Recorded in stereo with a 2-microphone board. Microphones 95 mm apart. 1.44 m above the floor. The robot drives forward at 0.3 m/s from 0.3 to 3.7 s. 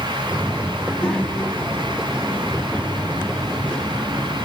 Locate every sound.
0.8 s a child speaking: 10° left (ahead or behind), 2.5 m; by 4.3 s 5° left (ahead or behind), 3 m